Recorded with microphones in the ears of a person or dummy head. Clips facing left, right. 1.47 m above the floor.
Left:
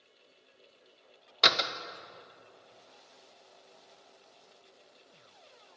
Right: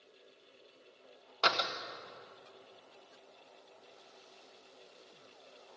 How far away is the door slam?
About 1.2 m.